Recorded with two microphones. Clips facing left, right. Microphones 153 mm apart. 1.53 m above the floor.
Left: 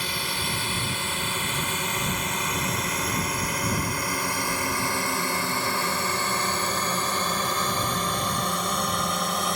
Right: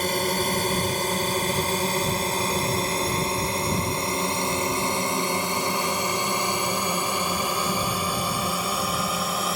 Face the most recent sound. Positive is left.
turn(degrees=0)  # may be behind; listen again after turning